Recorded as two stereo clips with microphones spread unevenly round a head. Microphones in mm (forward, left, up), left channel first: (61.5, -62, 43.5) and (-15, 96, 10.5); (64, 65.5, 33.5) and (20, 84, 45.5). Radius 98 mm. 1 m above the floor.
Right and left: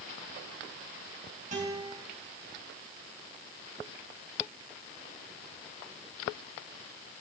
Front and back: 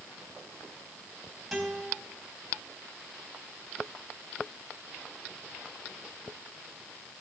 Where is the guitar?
70° left, 4 m.